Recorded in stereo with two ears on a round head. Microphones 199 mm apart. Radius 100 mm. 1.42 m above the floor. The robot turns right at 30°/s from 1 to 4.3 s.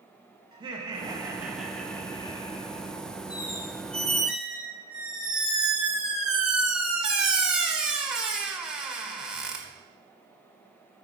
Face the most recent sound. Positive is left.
turn(degrees=-175)